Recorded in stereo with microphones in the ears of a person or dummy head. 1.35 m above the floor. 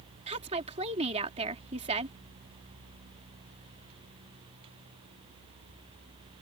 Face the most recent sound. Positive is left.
turn(degrees=-35)  # may be behind; listen again after turning